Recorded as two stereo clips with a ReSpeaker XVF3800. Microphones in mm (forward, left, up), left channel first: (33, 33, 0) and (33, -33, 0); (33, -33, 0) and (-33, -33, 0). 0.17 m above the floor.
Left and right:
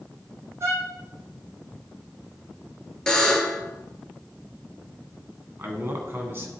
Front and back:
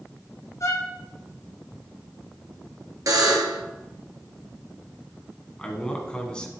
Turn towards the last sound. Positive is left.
turn(degrees=-70)